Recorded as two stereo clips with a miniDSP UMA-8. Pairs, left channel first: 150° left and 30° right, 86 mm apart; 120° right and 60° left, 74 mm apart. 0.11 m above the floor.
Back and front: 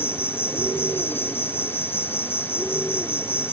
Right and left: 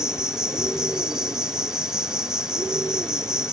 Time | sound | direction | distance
0.0 | an insect | 130° left | ?